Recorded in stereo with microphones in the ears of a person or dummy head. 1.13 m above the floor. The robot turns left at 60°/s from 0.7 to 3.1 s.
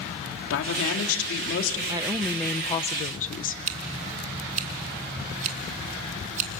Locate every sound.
0.5 s a woman speaking: 110° left, 2.5 m; by 1.8 s 45° left, 2.5 m
1.9 s a woman speaking: 150° right, 0.6 m; by 3.6 s 135° left, 0.6 m
3.7 s scissors: 40° right (ahead or behind), 1.6 m